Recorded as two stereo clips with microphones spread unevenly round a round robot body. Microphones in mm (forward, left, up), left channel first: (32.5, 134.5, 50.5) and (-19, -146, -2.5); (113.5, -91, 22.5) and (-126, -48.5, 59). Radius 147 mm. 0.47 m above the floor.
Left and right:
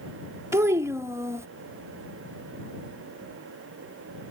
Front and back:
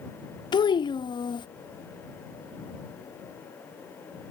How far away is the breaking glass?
I don't hear breaking glass.